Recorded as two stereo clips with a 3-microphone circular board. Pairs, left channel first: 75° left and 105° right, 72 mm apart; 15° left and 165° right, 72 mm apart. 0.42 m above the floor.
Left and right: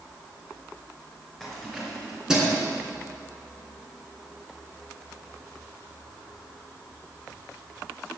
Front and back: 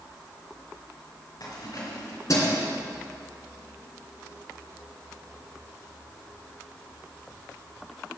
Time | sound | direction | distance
1.4 | keys jangling | 10° right | 4 m